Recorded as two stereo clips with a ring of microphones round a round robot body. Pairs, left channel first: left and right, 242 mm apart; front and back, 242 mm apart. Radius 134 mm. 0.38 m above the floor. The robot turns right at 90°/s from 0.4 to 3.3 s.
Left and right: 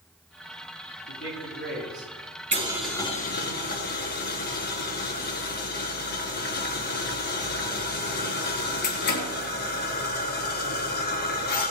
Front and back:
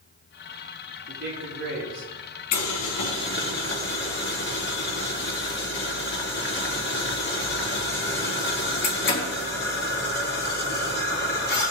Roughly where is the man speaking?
Behind left.